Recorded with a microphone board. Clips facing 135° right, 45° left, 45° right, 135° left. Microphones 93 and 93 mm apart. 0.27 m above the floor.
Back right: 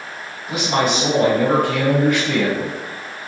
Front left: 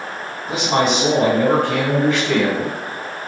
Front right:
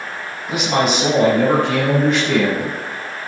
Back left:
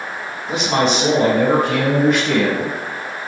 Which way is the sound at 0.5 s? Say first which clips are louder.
Front left 1 dB, even; 35° left.